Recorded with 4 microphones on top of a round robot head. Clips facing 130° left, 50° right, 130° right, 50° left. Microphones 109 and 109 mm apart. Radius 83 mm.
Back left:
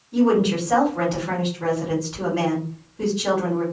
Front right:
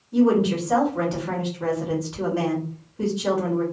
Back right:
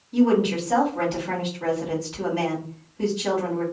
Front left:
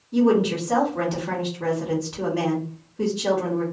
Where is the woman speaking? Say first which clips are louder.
Even, even; 20° left, 1.3 m.